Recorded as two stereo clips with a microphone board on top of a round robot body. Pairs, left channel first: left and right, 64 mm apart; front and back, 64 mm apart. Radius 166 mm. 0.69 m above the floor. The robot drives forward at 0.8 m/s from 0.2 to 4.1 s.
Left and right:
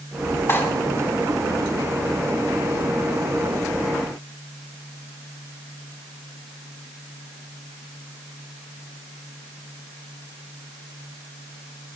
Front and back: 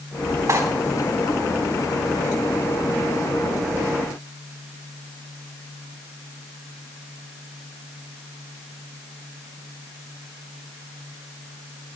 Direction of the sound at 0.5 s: 140° left.